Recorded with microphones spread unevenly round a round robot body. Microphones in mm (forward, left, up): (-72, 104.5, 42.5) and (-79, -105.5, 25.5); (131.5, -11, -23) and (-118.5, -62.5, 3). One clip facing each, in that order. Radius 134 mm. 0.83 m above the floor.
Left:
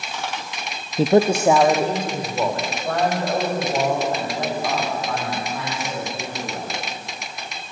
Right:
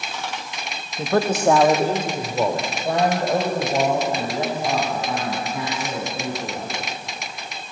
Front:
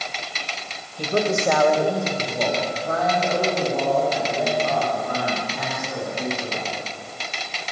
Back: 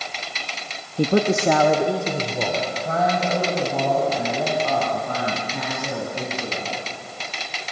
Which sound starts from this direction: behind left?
A man speaking, at 1.0 s.